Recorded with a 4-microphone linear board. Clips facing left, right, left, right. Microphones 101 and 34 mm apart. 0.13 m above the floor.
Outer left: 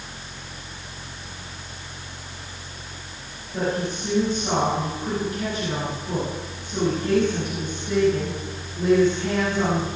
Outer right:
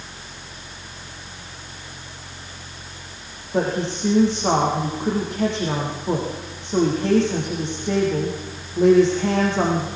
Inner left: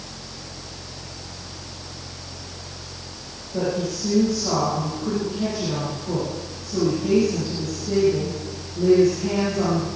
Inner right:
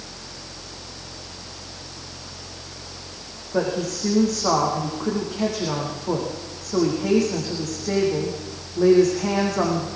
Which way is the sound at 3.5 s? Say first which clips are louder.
Outer right 3 dB, inner right 1 dB; 80° right.